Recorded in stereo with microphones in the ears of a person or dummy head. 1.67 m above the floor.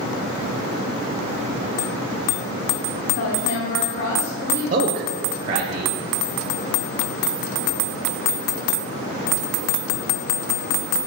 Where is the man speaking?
40° right (ahead or behind), 1.3 m.